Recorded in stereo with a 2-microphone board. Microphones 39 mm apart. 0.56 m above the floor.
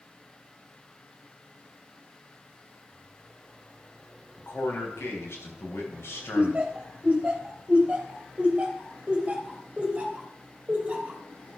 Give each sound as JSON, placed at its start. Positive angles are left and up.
{"t": 4.4, "sound": "a man speaking", "side_deg": 70, "distance_m": 4.0}
{"t": 6.3, "sound": "laughter", "side_deg": -25, "distance_m": 3.0}